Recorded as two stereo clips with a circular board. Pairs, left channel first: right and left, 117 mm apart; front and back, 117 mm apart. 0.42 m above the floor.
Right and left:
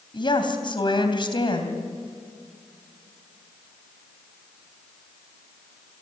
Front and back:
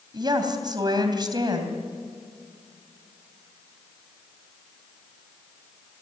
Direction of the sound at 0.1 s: 130° right.